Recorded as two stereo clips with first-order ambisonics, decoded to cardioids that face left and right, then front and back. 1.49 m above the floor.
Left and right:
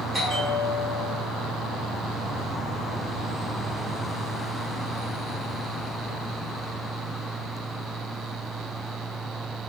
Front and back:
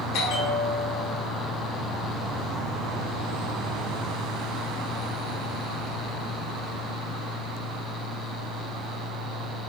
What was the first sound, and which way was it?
A bell, 15° right.